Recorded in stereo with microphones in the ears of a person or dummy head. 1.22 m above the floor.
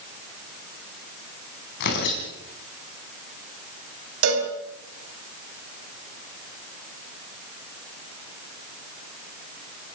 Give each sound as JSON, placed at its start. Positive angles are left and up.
{"t": 1.8, "sound": "tearing paper", "side_deg": 55, "distance_m": 4.5}
{"t": 4.2, "sound": "a cowbell", "side_deg": -80, "distance_m": 4.5}